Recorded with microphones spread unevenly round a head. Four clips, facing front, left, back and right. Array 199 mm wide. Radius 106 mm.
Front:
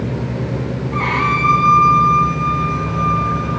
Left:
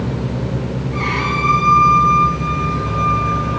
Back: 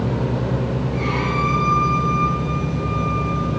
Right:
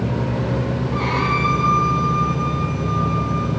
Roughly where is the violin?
Ahead.